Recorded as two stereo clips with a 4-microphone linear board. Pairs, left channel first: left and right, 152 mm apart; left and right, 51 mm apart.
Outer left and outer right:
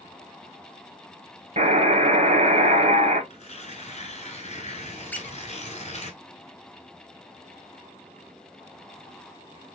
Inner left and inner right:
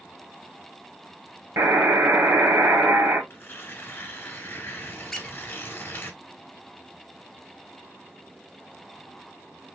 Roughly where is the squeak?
Centre.